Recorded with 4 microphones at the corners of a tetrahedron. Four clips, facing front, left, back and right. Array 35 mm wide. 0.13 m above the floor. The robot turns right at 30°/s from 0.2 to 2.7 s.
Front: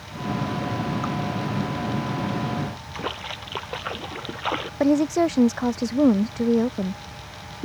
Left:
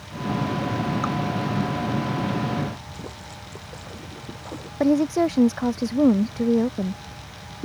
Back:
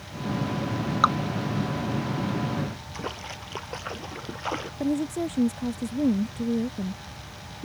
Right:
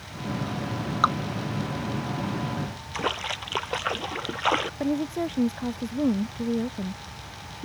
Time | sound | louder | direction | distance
1.0 | dripping | right 9 dB, back 7 dB | 145° right | ?
2.9 | a splash | right 10 dB, front 6 dB | 75° right | ?
4.8 | a woman speaking | left 7 dB, front 8 dB | 30° left | ?